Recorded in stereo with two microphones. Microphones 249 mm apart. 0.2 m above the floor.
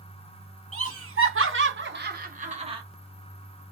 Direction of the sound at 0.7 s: 60° right (ahead or behind).